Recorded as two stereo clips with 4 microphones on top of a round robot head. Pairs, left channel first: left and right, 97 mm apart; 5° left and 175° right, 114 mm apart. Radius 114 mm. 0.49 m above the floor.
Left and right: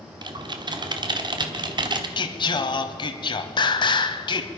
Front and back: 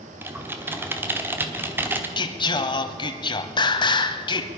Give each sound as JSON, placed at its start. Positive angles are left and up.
{"t": 0.2, "sound": "typing on a keyboard", "azimuth_deg": -110, "distance_m": 1.3}
{"t": 2.2, "sound": "singing", "azimuth_deg": 50, "distance_m": 0.9}